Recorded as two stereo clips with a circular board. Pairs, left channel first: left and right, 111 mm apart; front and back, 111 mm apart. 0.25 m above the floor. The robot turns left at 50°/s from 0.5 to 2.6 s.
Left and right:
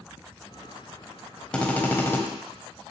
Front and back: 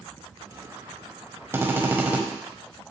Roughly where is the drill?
Behind left.